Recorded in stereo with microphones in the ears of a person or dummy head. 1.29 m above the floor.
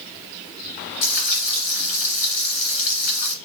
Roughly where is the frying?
Left.